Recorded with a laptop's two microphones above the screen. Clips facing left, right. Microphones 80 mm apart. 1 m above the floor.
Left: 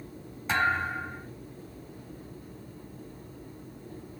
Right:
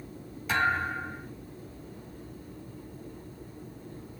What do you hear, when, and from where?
0.5 s a thud: 35° left (ahead or behind), 2.5 m